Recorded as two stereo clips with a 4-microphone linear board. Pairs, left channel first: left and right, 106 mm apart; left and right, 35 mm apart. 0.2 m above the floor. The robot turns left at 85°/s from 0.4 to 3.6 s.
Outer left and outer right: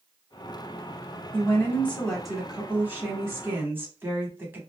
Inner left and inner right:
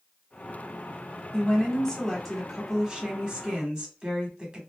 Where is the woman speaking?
25° left (ahead or behind), 1.0 m; by 4.6 s 20° right (ahead or behind), 1.0 m.